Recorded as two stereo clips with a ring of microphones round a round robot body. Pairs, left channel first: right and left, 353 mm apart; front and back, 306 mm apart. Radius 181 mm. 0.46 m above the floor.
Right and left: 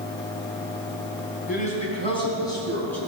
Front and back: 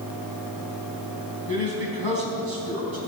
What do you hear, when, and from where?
1.5 s a man speaking: 160° right, 4.5 m; by 3.0 s 175° right, 4.5 m